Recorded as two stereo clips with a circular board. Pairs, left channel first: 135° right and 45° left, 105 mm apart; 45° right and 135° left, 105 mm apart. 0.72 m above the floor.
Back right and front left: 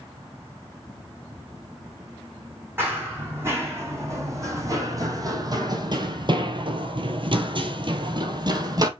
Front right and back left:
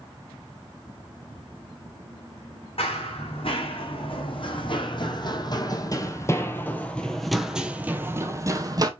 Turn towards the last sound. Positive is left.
turn(degrees=90)